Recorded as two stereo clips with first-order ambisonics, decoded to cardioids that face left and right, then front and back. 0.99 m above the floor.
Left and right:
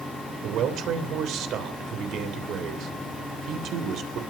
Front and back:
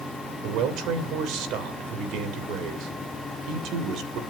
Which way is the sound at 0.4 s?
140° right.